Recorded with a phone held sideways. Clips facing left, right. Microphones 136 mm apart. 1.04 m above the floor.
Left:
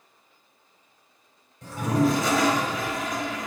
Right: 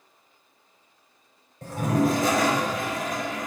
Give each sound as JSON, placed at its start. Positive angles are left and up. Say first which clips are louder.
{"t": 1.6, "sound": "a toilet flushing", "louder": "even", "side_deg": -50, "distance_m": 1.5}